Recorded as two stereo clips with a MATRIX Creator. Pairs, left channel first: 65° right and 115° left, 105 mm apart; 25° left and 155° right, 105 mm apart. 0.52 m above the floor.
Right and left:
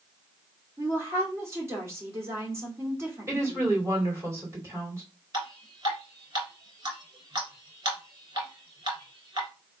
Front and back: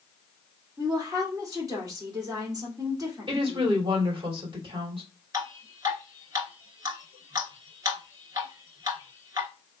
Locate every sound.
0.8 s a woman speaking: 165° left, 1.8 m
3.3 s a woman speaking: 175° left, 2.5 m
5.3 s dripping: 150° left, 1.7 m